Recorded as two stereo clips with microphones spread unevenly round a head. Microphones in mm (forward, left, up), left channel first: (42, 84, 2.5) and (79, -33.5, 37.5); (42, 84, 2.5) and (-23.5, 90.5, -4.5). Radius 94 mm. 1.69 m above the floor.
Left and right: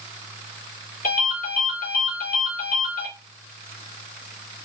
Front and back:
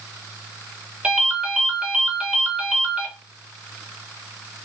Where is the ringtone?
100° left, 1.4 m.